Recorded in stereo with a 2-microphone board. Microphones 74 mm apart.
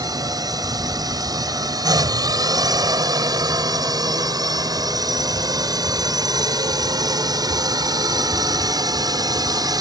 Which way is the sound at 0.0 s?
60° right (ahead or behind).